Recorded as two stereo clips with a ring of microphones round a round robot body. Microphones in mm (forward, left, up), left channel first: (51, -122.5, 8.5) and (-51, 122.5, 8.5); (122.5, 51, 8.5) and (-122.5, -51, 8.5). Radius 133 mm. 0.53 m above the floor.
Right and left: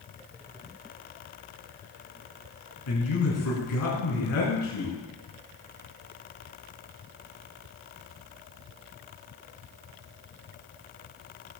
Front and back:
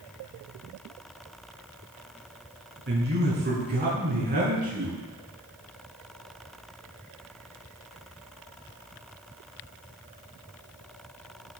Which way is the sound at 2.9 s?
105° right.